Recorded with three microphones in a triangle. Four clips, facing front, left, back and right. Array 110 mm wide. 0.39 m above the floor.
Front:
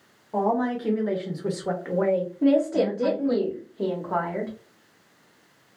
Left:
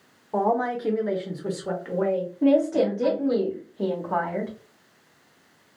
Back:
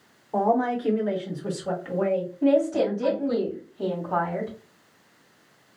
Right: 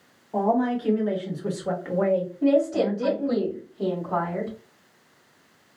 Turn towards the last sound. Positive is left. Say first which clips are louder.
# left 2 dB, even
turn(degrees=45)